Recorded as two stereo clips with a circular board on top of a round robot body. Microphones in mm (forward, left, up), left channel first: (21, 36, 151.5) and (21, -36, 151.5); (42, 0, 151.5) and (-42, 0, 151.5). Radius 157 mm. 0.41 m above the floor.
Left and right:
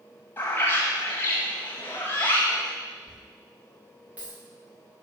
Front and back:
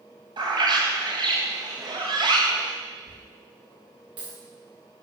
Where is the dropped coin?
160° right, 3.5 m.